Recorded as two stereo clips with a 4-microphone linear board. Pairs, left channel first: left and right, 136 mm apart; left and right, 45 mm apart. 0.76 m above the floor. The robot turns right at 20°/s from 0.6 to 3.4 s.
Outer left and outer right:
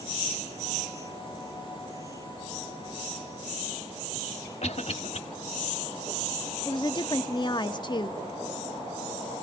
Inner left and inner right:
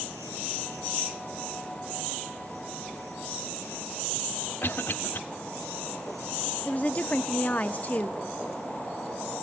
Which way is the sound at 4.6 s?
55° left (ahead or behind).